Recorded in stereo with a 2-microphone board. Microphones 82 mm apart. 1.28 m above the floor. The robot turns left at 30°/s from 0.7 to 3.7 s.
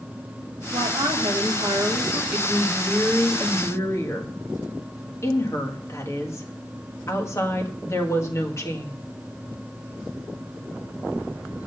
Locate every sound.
0.7 s a woman speaking: 95° right, 1.7 m; by 2.2 s 140° right, 1.7 m
2.3 s a woman speaking: 175° right, 1.6 m; by 8.9 s 145° left, 1.6 m